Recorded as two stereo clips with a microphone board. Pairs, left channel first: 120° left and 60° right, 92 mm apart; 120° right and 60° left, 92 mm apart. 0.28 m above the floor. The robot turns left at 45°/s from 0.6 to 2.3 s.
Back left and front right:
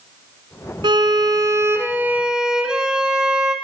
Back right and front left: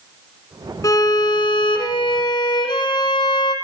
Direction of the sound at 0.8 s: 75° right.